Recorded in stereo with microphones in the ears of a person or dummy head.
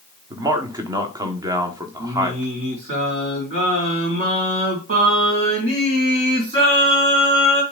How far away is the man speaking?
About 1.2 m.